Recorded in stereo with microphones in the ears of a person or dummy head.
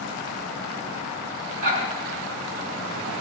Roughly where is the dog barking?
Right.